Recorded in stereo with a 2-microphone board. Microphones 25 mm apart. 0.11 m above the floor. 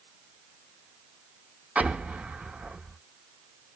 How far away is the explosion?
About 0.7 m.